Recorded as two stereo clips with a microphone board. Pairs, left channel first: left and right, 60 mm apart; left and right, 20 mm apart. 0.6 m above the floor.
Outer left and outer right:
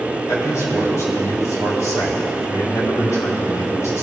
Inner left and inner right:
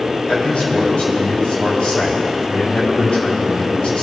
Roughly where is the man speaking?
Left.